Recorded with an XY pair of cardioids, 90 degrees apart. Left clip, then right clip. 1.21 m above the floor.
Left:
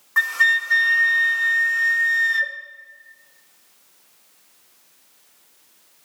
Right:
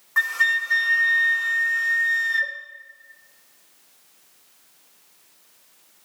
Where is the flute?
15° left, 0.7 m.